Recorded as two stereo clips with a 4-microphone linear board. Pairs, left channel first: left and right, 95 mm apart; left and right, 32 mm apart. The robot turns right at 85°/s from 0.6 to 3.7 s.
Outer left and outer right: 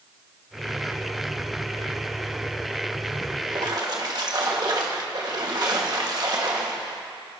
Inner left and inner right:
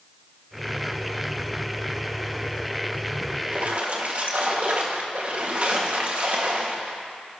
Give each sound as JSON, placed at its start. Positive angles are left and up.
{"t": 3.5, "sound": "a splash", "side_deg": -50, "distance_m": 1.5}